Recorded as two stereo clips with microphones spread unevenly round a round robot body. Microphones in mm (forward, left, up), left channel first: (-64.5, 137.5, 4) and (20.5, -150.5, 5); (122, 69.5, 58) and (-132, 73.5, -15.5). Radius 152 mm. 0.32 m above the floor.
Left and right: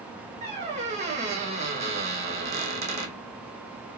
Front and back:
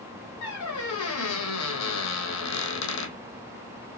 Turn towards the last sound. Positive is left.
turn(degrees=-5)